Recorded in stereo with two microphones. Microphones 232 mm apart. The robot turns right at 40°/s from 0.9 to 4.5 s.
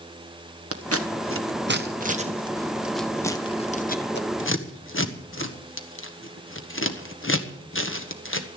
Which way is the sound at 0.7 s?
80° right.